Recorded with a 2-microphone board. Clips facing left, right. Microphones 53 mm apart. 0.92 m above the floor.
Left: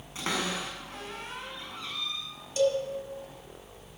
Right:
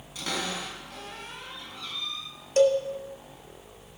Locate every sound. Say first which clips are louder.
0.1 s a cupboard door: left 1 dB; 35° left (ahead or behind), 6 m
2.6 s a cowbell: right 5 dB; 55° right (ahead or behind), 1.7 m